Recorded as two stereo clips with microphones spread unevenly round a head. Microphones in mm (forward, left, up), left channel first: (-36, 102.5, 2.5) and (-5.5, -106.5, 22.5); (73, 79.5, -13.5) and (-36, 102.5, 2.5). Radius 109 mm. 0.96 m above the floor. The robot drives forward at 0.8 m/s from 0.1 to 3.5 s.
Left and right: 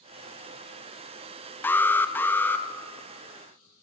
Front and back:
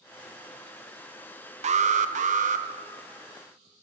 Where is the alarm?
175° left, 0.8 m.